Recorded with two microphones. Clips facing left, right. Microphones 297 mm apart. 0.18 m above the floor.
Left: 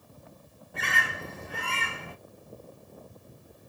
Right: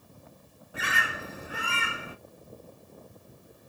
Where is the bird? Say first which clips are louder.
Even; 5° right (ahead or behind), 0.8 m.